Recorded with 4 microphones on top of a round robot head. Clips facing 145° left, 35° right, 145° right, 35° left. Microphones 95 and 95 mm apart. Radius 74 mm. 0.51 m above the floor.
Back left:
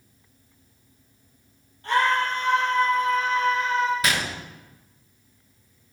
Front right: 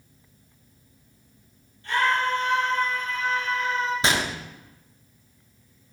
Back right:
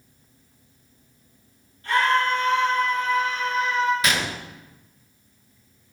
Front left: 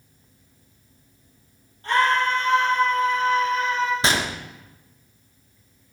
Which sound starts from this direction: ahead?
A gunshot, at 4.0 s.